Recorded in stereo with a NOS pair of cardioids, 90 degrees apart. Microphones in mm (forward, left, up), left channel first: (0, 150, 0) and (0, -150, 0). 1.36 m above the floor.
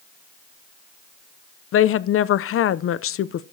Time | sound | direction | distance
1.7 | a woman speaking | 45° left | 0.5 m